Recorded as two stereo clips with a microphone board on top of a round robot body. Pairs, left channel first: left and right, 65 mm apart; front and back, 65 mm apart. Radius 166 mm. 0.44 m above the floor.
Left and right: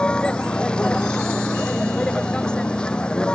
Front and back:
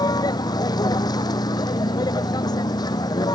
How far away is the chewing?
No chewing in this recording.